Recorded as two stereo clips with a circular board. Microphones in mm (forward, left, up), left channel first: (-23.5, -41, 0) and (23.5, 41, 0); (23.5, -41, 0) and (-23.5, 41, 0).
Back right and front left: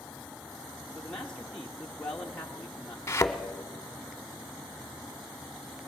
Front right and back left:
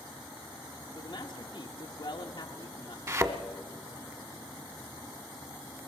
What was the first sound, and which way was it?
A man speaking, 40° right.